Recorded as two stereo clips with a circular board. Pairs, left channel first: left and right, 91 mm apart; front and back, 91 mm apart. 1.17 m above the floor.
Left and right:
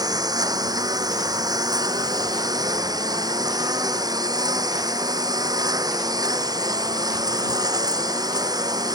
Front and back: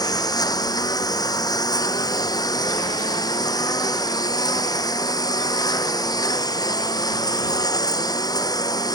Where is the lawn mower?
45° right.